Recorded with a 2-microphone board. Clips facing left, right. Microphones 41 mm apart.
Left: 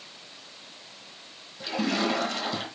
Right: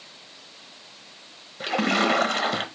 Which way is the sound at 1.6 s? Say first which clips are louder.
Right 5 dB; 60° right (ahead or behind).